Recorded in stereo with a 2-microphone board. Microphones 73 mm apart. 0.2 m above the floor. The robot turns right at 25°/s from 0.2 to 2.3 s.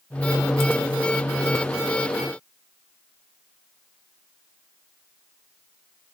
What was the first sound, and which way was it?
Only background noise.